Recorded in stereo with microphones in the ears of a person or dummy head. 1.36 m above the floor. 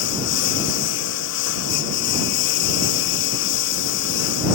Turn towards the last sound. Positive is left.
turn(degrees=70)  # may be behind; listen again after turning